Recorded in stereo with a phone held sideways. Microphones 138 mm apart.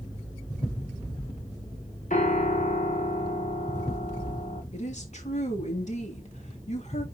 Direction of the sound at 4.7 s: 55° left (ahead or behind).